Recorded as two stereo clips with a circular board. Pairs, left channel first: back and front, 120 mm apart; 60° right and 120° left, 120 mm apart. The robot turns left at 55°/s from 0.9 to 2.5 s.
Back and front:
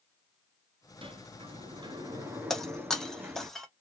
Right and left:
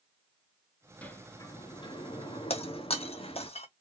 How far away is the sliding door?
About 0.7 m.